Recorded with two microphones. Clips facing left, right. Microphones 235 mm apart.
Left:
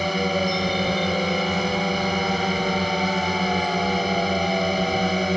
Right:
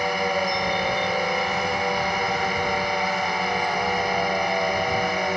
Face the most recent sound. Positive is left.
turn(degrees=35)  # may be behind; listen again after turning